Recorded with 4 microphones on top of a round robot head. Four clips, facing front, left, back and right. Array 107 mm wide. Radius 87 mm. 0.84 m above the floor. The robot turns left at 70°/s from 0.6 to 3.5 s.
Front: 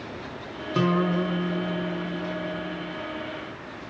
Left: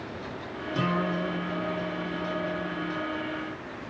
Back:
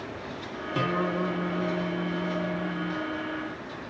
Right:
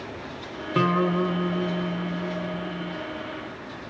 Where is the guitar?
65° right, 4.5 m; by 3.0 s 135° left, 4.5 m.